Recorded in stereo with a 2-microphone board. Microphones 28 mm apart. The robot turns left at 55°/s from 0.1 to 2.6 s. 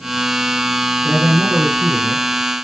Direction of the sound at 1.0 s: 20° right.